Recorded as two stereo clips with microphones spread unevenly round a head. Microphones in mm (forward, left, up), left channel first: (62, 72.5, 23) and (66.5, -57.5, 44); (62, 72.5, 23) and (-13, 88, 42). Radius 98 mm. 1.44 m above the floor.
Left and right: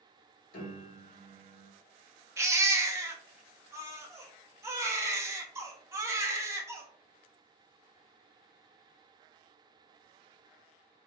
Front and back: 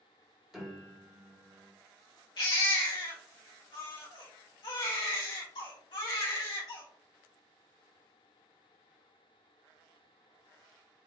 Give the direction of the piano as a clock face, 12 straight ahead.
9 o'clock.